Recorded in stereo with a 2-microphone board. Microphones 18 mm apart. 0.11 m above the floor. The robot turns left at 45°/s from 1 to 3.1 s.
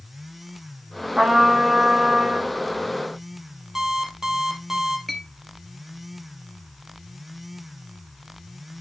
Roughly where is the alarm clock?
Right.